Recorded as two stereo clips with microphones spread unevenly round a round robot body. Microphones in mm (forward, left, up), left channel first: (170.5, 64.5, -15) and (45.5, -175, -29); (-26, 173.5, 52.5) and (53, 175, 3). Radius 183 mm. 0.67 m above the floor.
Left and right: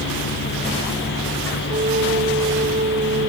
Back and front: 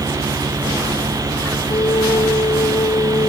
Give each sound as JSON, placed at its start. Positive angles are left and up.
{"t": 1.7, "sound": "a flute", "azimuth_deg": 175}